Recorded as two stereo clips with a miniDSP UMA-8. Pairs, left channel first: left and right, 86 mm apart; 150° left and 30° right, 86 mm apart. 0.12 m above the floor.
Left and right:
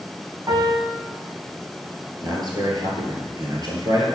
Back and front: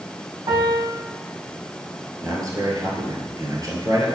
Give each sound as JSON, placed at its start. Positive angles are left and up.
{"t": 0.5, "sound": "a piano", "azimuth_deg": -45, "distance_m": 3.0}
{"t": 2.2, "sound": "a man speaking", "azimuth_deg": -65, "distance_m": 2.5}